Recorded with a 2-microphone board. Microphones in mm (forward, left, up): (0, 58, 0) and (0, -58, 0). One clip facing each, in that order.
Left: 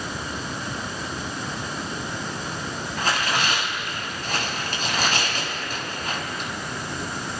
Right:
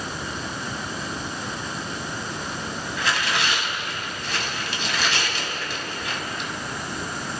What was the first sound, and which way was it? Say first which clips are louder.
Tearing paper: left 1 dB; 45° left (ahead or behind).